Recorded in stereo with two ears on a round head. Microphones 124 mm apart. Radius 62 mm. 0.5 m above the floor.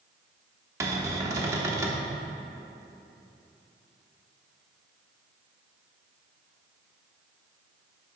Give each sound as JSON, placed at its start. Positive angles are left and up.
{"t": 0.8, "sound": "a cupboard door", "side_deg": -20, "distance_m": 0.9}